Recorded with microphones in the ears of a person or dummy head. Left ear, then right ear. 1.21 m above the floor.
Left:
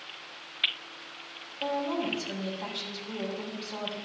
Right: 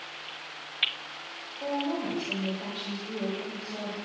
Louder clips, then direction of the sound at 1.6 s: Left 1 dB; 15° left (ahead or behind).